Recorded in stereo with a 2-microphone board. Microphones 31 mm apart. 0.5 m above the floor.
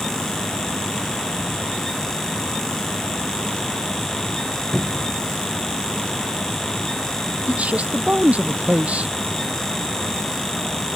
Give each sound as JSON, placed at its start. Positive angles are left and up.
{"t": 4.7, "sound": "a cupboard door", "side_deg": 25}
{"t": 7.5, "sound": "a man speaking", "side_deg": -50}